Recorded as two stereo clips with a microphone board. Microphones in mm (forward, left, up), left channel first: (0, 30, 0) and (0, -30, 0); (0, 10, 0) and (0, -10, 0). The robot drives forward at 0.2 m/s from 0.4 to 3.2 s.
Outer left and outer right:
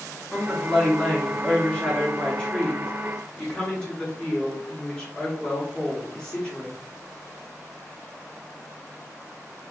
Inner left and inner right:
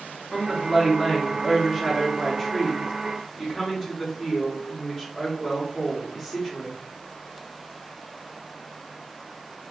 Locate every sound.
0.3 s a woman speaking: 15° left (ahead or behind), 0.9 m